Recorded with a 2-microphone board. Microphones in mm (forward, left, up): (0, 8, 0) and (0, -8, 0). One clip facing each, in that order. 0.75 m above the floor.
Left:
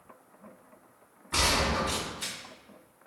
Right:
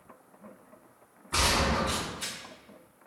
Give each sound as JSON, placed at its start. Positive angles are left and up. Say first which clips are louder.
{"t": 1.3, "sound": "a gunshot", "louder": "even", "side_deg": 10, "distance_m": 1.1}